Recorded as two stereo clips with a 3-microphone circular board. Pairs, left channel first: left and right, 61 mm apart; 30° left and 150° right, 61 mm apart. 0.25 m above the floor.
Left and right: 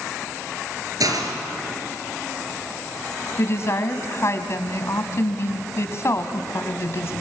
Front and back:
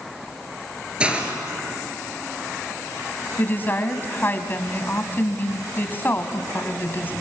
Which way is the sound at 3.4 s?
75° left.